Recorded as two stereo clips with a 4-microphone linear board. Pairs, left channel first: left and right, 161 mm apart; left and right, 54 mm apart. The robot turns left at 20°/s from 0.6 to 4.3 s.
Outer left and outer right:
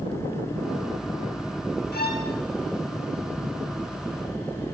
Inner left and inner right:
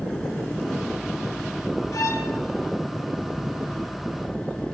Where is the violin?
75° left (ahead or behind), 1.7 m; by 2.3 s 65° left (ahead or behind), 1.7 m.